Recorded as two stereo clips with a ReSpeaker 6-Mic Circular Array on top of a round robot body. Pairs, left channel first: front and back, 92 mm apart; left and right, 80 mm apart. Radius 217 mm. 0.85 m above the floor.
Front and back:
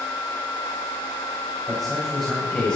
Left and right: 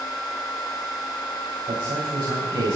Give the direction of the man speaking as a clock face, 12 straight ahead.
3 o'clock.